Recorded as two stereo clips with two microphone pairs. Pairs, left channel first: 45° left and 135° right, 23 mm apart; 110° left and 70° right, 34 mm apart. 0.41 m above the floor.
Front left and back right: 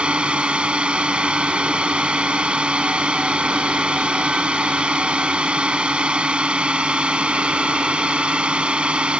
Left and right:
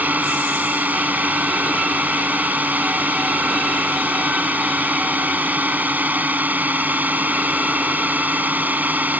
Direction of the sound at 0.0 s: 100° right.